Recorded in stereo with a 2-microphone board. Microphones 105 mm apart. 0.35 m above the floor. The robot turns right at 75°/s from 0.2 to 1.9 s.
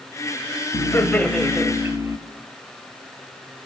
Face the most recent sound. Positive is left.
turn(degrees=-145)